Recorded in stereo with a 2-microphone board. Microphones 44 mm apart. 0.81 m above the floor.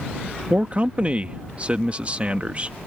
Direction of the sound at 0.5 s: 30° right (ahead or behind).